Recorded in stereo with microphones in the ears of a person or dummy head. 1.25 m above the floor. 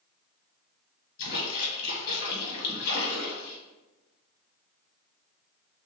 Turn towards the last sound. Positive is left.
turn(degrees=45)  # may be behind; listen again after turning